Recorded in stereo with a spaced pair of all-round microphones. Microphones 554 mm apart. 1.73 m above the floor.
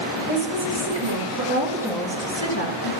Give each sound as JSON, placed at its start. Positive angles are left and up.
{"t": 0.3, "sound": "a woman speaking", "side_deg": -60, "distance_m": 2.5}